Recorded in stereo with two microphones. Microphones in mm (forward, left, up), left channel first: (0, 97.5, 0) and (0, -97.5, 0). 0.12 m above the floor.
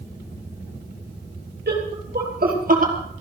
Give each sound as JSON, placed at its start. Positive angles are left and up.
{"t": 1.7, "sound": "laughter", "side_deg": -55, "distance_m": 4.0}